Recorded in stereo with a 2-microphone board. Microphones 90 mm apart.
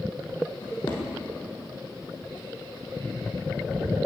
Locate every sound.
0.6 s a drawer: 55° left (ahead or behind), 6.5 m